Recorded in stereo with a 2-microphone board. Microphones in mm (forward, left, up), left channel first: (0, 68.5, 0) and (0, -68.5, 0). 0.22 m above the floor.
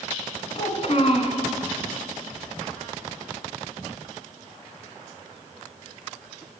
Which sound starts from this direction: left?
A child speaking, at 0.6 s.